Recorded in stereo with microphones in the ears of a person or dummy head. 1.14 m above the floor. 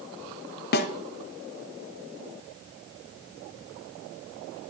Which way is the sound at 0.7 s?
50° left (ahead or behind).